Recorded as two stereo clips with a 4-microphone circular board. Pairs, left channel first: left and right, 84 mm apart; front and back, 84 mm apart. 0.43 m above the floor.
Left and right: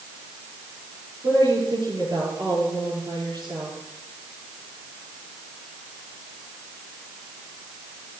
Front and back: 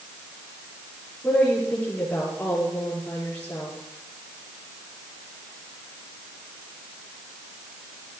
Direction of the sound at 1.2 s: 70° right.